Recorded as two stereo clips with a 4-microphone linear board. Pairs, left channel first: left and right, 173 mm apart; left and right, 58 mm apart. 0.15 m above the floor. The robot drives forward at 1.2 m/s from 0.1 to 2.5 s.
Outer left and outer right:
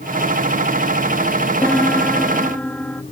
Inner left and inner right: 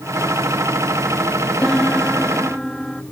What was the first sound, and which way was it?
A piano, 5° left (ahead or behind).